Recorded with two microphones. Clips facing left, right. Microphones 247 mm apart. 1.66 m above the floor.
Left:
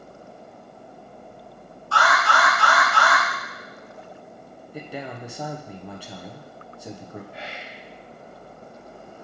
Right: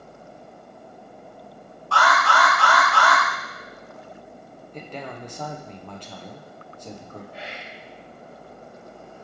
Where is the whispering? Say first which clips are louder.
Even; 40° right (ahead or behind), 2.5 m.